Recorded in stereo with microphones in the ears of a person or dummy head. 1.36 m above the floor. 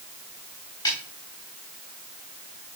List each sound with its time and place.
0.8 s a snare drum: 15° left (ahead or behind), 3.5 m